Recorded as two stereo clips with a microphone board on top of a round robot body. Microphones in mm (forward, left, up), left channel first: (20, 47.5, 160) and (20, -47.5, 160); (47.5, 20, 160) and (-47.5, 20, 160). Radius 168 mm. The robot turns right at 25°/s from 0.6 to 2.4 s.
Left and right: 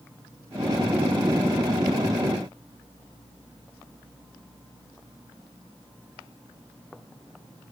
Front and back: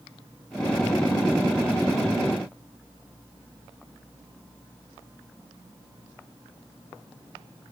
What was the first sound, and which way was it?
Only background noise.